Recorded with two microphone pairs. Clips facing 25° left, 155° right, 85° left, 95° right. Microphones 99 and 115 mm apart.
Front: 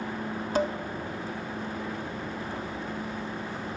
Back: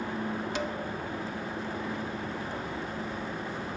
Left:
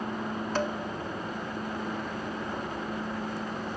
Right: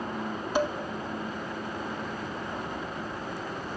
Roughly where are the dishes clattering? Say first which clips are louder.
Front 11 dB, right 4 dB; ahead.